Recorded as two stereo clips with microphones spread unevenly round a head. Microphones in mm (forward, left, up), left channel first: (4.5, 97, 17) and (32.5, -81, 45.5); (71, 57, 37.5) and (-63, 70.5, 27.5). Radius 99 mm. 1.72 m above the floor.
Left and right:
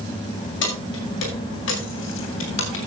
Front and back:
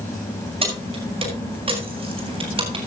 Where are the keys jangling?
130° left, 5.5 m; by 2.9 s 125° left, 3.5 m.